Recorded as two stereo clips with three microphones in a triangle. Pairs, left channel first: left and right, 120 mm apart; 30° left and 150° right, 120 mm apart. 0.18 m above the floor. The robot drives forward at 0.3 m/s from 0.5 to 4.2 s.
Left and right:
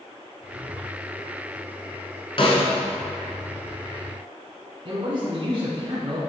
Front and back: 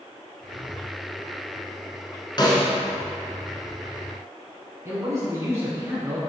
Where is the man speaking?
100° right, 1.6 m.